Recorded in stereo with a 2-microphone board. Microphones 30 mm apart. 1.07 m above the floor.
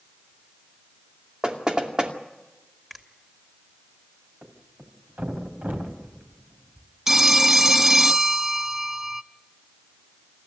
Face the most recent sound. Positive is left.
turn(degrees=-10)  # may be behind; listen again after turning